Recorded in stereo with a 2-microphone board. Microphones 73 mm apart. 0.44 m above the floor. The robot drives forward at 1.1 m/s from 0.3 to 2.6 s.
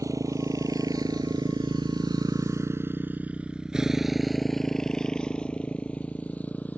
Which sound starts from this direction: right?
A motorcycle, at 0.0 s.